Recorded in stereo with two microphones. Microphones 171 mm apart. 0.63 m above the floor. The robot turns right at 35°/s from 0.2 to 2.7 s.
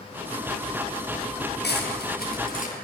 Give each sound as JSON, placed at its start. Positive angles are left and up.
{"t": 1.6, "sound": "cutlery clinking", "side_deg": 85, "distance_m": 7.0}